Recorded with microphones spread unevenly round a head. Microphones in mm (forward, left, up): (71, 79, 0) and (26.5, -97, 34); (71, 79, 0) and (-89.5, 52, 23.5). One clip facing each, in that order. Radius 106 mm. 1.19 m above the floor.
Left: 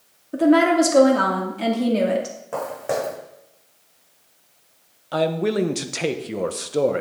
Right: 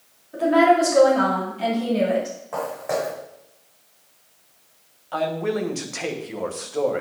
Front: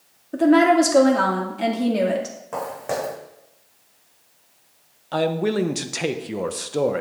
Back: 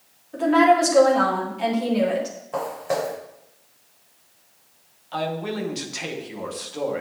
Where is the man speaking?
35° left, 0.9 m.